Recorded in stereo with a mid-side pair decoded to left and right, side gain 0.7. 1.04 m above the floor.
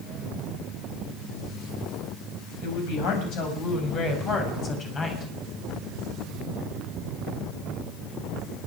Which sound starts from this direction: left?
A woman speaking, at 2.6 s.